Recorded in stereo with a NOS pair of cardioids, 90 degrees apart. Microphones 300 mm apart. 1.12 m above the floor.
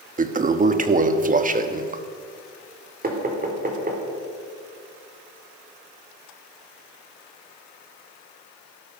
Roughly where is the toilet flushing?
Ahead right.